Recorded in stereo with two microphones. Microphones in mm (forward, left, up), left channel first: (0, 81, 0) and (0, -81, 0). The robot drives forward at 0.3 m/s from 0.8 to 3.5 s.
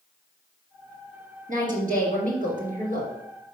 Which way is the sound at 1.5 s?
55° right (ahead or behind).